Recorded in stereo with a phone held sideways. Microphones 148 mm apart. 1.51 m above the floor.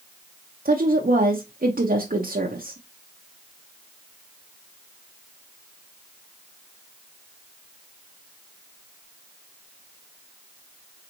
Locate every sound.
0.7 s a woman speaking: 75° right (ahead or behind), 0.8 m